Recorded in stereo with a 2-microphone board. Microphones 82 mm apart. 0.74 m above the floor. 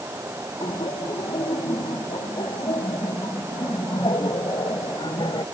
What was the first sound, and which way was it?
Laughter, 80° left.